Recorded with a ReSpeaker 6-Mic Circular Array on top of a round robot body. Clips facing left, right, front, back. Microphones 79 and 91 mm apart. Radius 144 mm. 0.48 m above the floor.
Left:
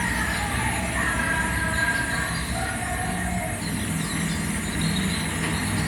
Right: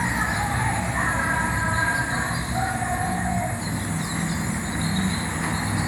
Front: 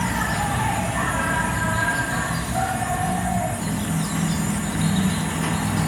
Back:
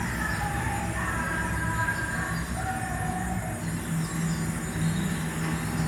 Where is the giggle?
I don't hear a giggle.